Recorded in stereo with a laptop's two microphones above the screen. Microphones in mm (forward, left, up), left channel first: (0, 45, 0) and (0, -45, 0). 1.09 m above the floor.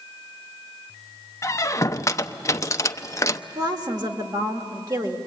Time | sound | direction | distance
1.4 | a squeak | 35° left (ahead or behind) | 0.6 m
3.5 | a woman speaking | 50° right (ahead or behind) | 1.6 m